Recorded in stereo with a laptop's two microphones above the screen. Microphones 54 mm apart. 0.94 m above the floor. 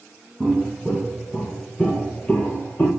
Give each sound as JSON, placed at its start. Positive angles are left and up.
{"t": 0.4, "sound": "footsteps", "side_deg": -10, "distance_m": 1.2}